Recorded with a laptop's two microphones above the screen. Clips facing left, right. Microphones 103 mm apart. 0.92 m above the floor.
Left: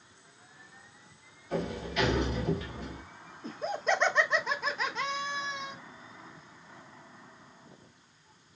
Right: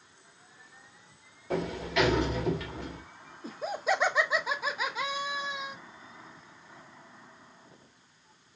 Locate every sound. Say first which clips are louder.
1.5 s a sliding door: right 3 dB; 85° right, 1.2 m
3.4 s laughter: even; 5° right (ahead or behind), 0.5 m